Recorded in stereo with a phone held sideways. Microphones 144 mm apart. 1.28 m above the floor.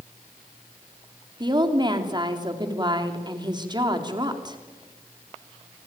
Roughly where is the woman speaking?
Right.